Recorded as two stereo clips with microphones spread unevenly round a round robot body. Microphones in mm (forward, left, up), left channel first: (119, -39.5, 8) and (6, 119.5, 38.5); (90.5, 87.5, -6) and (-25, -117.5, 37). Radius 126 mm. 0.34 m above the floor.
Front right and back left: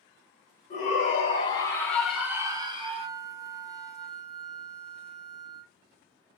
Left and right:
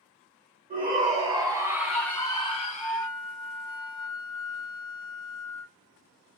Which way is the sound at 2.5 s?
50° left.